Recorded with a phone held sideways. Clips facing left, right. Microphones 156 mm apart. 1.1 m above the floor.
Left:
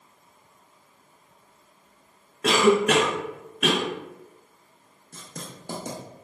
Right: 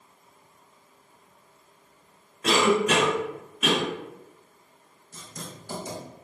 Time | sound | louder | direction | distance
2.4 | a cough | left 3 dB | 60° left (ahead or behind) | 0.6 m
5.1 | writing | left 1 dB | 60° left (ahead or behind) | 0.8 m